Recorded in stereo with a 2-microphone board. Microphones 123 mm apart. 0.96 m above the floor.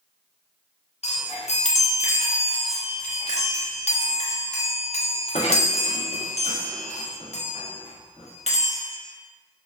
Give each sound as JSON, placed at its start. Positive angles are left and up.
{"t": 1.0, "sound": "a chime", "side_deg": 60, "distance_m": 0.5}